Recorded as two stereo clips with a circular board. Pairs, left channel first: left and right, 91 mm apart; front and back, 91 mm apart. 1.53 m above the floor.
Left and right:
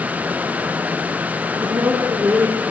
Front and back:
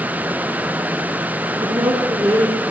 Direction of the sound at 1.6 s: 145° right.